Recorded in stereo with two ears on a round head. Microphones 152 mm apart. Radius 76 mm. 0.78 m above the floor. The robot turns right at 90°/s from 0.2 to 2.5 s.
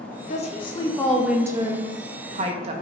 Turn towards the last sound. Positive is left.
turn(degrees=-60)